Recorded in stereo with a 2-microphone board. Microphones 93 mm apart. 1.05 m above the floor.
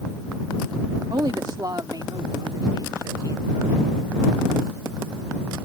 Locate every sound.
1.1 s a woman speaking: 50° right (ahead or behind); by 3.8 s 45° right (ahead or behind)